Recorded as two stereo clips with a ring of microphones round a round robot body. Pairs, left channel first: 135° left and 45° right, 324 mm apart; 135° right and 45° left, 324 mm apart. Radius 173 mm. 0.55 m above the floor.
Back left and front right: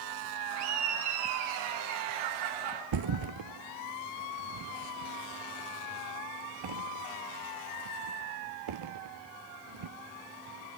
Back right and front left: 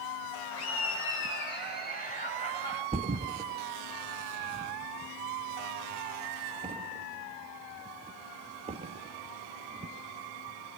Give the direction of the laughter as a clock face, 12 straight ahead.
3 o'clock.